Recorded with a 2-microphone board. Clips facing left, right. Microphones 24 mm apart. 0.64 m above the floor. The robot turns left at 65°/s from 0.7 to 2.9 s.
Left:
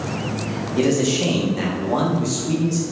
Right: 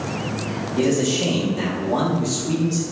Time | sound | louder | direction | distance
0.8 | a man speaking | left 1 dB | 25° left (ahead or behind) | 0.5 m